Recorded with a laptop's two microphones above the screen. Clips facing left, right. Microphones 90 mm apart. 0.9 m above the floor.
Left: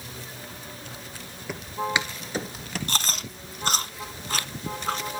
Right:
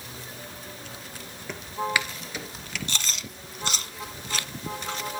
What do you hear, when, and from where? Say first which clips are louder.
1.5 s footsteps: left 1 dB; 5° left (ahead or behind), 1.3 m; by 2.8 s 40° left (ahead or behind), 1.2 m
2.9 s chewing: left 4 dB; 45° left (ahead or behind), 1.3 m